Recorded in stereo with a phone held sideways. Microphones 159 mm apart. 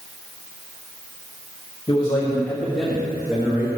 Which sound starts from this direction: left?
A man speaking, at 1.9 s.